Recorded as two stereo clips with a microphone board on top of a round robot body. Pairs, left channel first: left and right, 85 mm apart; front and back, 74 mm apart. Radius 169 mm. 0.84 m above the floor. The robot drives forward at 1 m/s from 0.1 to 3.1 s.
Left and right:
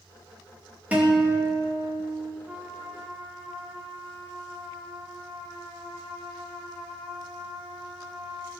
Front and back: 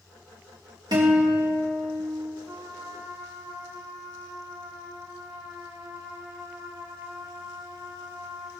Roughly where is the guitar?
Behind.